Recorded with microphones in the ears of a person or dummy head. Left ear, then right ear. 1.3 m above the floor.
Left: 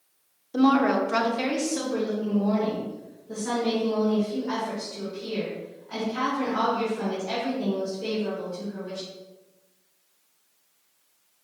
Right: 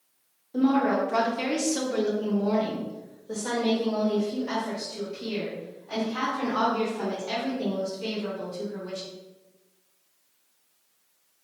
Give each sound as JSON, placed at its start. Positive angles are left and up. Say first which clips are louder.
{"t": 0.5, "sound": "a woman speaking", "louder": "left 2 dB", "side_deg": 35, "distance_m": 0.7}